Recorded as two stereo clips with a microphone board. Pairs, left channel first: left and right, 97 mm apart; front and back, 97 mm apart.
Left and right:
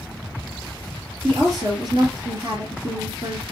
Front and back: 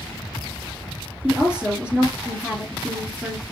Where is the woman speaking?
105° right, 2 m.